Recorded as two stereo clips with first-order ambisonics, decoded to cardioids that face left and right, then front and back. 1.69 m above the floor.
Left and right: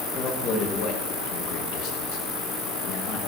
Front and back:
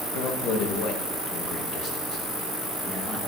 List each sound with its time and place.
0.1 s a man speaking: 35° left, 2.5 m; by 3.2 s 80° left, 3 m